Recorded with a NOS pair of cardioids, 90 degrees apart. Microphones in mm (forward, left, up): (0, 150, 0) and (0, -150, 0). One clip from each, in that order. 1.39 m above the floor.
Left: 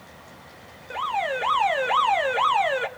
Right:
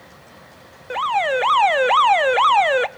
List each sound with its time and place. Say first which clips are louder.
0.9 s an alarm: right 6 dB; 40° right, 1.2 m